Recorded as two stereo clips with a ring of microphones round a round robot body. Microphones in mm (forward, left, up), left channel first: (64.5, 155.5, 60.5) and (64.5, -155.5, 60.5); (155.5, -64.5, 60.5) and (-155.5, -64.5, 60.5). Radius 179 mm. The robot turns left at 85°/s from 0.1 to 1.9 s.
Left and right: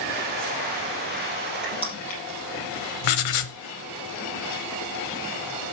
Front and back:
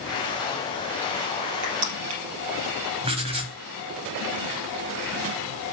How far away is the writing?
About 0.8 m.